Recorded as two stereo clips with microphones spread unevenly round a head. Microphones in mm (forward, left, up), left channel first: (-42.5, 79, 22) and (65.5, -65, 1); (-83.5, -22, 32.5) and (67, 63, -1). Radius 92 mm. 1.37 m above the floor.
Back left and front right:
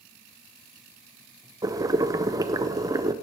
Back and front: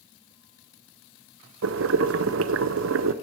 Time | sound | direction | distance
1.6 | boiling | 20° left | 0.6 m